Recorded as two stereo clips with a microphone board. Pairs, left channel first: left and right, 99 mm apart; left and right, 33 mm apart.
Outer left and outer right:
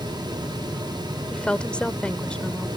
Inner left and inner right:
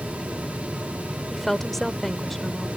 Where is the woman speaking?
10° left (ahead or behind).